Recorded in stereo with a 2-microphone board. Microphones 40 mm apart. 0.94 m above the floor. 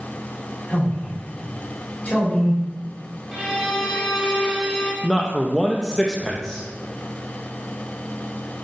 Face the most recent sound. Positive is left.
turn(degrees=10)  # may be behind; listen again after turning